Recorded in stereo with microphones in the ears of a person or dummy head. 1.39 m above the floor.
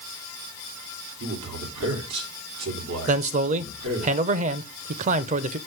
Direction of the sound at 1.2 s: 70° right (ahead or behind).